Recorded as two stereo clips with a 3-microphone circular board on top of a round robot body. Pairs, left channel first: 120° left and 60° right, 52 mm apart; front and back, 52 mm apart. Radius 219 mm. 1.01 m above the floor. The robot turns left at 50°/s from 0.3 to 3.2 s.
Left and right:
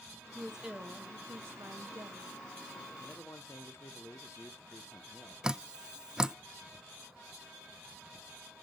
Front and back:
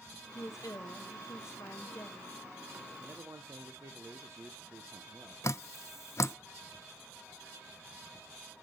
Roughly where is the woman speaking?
Ahead left.